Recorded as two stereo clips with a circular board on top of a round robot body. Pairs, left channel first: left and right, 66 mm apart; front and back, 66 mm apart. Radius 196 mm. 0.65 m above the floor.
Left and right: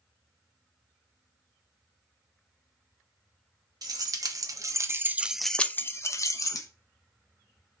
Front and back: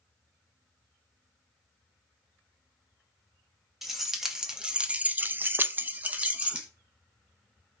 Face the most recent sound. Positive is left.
turn(degrees=110)